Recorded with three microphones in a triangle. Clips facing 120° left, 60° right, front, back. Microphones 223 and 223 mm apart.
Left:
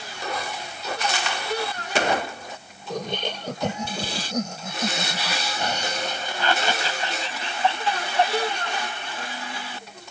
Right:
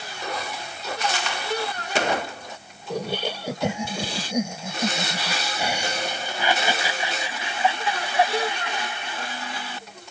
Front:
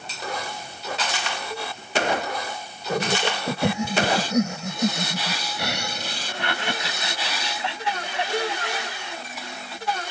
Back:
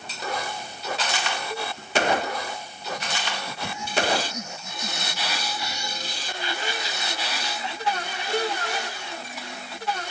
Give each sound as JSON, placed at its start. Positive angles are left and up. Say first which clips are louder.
{"t": 2.9, "sound": "laughter", "louder": "right 2 dB, front 9 dB", "azimuth_deg": 20}